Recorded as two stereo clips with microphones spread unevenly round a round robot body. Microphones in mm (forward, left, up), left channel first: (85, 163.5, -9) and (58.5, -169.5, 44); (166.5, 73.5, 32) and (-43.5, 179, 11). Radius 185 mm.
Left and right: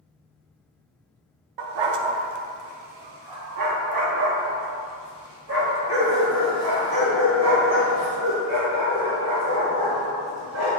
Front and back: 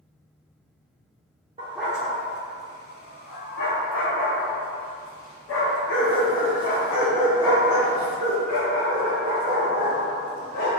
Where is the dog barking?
130° right, 0.5 m; by 10.8 s 55° right, 5.5 m.